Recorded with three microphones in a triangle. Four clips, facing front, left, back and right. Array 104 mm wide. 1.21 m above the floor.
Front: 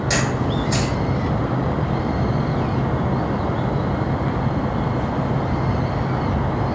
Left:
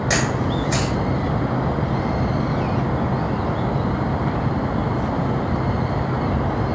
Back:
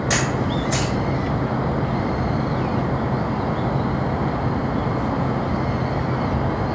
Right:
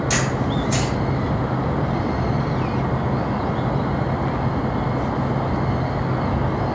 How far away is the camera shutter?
About 1.1 m.